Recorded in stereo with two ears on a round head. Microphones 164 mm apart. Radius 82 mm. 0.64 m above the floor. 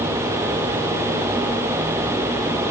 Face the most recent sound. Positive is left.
No sound to turn to.